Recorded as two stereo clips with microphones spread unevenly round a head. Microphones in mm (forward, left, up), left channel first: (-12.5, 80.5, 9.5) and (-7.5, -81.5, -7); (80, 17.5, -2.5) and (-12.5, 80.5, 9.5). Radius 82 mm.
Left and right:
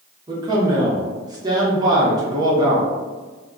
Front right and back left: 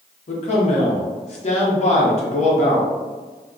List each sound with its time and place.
0.3 s a man speaking: 20° right, 1.0 m